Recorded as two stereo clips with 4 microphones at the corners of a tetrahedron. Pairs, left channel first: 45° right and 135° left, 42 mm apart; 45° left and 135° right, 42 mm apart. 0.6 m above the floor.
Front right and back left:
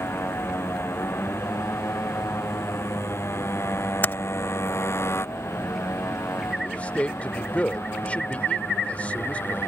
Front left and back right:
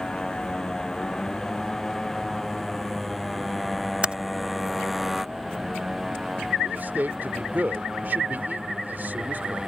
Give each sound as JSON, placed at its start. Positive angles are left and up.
{"t": 0.0, "sound": "a motorcycle", "azimuth_deg": -30}
{"t": 4.0, "sound": "typing on a keyboard", "azimuth_deg": -75}
{"t": 6.6, "sound": "a man speaking", "azimuth_deg": -95}